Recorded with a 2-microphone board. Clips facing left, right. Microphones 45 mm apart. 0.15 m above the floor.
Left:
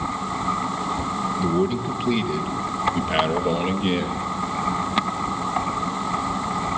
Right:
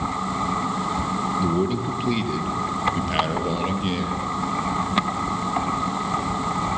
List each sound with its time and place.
1.4 s a man speaking: centre (ahead or behind), 3.5 m; by 4.3 s 20° left (ahead or behind), 4.5 m